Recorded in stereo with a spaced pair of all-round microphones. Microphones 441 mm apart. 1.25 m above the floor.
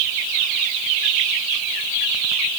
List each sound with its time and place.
Only background noise.